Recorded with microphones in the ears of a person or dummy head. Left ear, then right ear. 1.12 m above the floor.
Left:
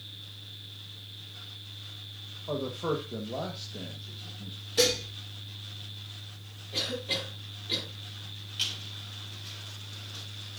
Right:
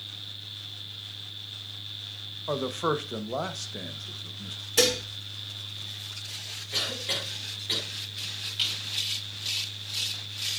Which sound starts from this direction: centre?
A squeak, at 8.6 s.